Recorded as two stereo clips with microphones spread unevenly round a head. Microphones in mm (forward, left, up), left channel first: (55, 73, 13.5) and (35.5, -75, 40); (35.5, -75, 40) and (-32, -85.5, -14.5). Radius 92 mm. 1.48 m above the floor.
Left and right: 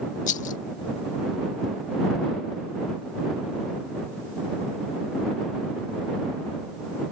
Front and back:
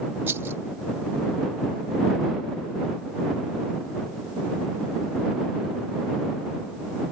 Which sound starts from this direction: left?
A rattle, at 0.3 s.